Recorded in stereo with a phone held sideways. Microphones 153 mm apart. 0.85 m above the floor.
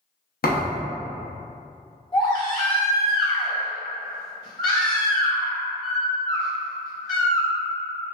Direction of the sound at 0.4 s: 85° left.